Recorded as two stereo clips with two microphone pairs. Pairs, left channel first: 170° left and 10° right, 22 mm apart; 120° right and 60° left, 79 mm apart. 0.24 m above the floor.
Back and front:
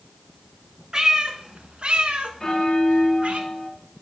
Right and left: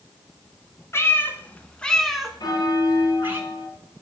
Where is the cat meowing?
70° right, 1.2 m; by 3.4 s straight ahead, 1.3 m.